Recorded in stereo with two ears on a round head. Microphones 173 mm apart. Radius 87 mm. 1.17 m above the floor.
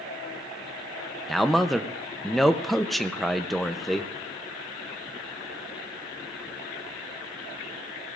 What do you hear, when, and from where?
1.3 s a man speaking: centre (ahead or behind), 0.6 m